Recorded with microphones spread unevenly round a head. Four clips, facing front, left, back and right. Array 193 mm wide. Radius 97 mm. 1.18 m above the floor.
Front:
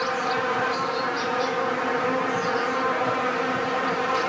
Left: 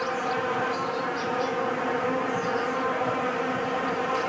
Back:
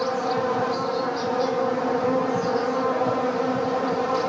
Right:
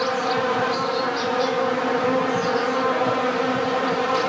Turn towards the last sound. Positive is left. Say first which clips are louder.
# right 5 dB, back 1 dB
turn(degrees=-110)